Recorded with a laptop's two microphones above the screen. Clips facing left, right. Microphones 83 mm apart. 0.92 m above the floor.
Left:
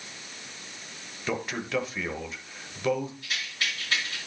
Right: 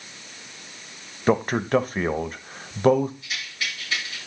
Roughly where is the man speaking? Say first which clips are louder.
Right 10 dB; right.